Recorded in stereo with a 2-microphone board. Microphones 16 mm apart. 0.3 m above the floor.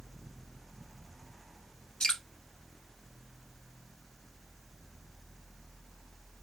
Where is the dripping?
60° left (ahead or behind), 1.0 m.